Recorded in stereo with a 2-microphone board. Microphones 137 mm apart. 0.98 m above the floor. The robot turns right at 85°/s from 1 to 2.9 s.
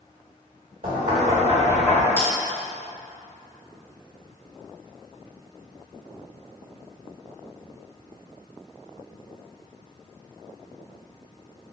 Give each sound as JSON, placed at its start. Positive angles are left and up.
{"t": 0.8, "sound": "knocking", "azimuth_deg": -80, "distance_m": 1.3}
{"t": 2.2, "sound": "a bell", "side_deg": 20, "distance_m": 1.4}